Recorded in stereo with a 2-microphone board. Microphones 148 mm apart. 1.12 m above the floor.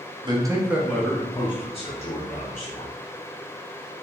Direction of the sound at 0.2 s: 30° right (ahead or behind).